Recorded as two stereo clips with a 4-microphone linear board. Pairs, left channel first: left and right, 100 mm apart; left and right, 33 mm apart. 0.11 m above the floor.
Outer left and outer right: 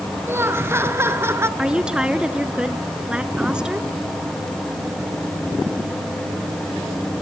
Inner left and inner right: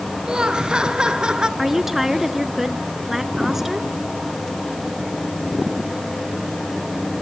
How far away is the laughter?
About 1.9 m.